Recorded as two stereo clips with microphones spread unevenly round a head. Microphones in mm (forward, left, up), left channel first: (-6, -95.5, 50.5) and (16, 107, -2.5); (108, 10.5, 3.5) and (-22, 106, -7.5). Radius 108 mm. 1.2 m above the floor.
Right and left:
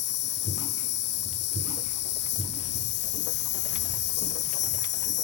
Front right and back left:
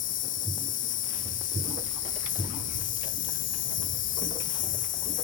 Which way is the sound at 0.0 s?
75° right.